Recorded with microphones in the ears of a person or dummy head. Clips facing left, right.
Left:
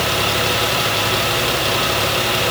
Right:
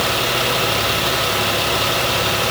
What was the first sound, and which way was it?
Only background noise.